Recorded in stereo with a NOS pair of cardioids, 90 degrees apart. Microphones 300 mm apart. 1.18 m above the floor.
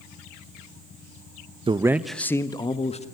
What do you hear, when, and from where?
1.7 s a man speaking: 20° right, 0.9 m; by 3.0 s 20° left, 1.8 m